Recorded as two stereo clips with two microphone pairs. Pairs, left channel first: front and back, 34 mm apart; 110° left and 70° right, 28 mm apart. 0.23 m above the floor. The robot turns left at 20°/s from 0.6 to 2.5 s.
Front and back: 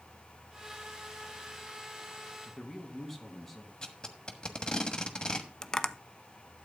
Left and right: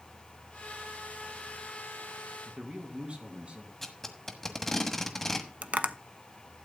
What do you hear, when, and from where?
2.5 s a man speaking: 80° right, 2.5 m; by 3.7 s 85° right, 2.5 m
3.8 s tape being pulled: 30° left, 1.2 m
5.6 s tapping: 65° right, 0.6 m